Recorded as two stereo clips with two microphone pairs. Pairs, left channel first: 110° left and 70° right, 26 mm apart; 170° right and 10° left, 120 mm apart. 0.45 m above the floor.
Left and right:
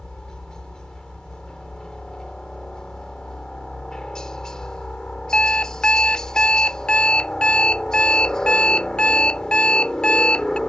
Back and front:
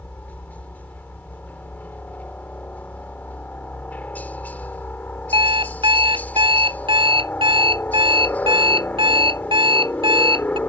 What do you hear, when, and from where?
0.0 s a helicopter: 130° left
5.3 s an alarm clock: 55° left